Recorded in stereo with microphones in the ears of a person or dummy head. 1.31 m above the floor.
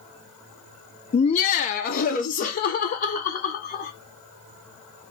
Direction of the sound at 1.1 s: 25° left (ahead or behind).